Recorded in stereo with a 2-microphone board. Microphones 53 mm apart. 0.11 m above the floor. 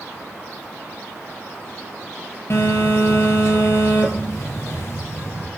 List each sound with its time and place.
2.5 s a phone buzzing: 55° left (ahead or behind), 0.6 m